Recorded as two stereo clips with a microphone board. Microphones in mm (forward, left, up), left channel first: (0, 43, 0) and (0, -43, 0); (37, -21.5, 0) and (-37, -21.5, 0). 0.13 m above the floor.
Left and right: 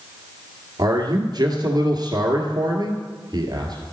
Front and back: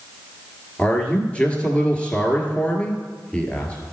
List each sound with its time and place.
0.8 s a man speaking: 70° right, 1.8 m